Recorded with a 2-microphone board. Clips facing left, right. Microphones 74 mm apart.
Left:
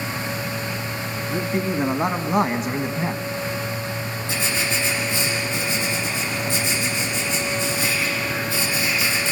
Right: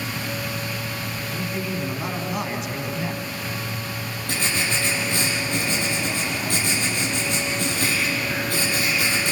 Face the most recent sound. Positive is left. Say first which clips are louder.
# even
turn(degrees=-60)  # may be behind; listen again after turning